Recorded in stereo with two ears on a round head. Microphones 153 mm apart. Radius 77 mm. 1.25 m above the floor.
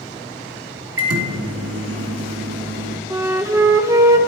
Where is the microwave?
80° right, 1.6 m.